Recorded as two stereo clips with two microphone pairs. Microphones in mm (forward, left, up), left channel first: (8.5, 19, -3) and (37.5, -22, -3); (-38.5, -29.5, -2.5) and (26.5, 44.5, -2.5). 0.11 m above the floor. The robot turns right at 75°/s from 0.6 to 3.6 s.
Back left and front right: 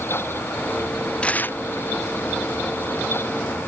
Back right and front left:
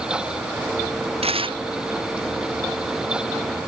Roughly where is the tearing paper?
Ahead left.